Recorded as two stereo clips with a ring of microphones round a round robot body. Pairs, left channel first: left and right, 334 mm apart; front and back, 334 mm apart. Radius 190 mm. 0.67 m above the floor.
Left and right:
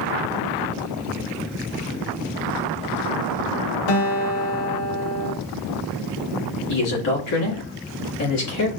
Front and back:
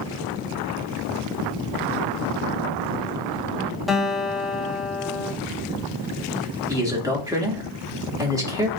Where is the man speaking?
100° left, 2.0 m.